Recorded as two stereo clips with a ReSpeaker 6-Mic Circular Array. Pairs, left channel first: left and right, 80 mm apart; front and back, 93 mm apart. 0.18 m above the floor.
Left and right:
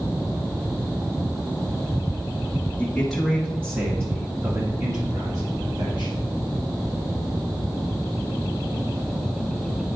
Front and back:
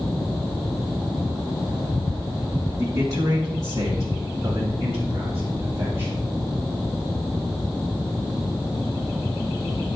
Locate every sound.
2.8 s a man speaking: 155° left, 1.3 m; by 6.3 s 115° right, 3.5 m